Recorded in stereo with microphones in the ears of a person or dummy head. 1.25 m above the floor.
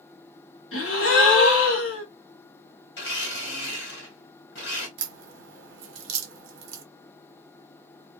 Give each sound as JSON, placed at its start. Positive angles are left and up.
{"t": 0.7, "sound": "a gasp", "side_deg": 70, "distance_m": 0.9}
{"t": 3.0, "sound": "a blender", "side_deg": 55, "distance_m": 1.4}
{"t": 5.0, "sound": "a crack", "side_deg": -65, "distance_m": 1.0}